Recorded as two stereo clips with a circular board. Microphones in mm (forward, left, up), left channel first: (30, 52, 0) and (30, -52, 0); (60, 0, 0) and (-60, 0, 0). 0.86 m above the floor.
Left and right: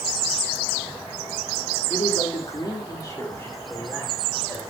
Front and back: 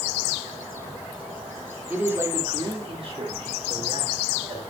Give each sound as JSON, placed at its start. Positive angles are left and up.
{"t": 1.9, "sound": "a man speaking", "azimuth_deg": 105, "distance_m": 2.0}